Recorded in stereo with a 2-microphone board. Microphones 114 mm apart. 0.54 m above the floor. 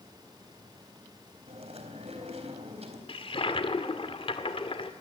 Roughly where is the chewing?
Right.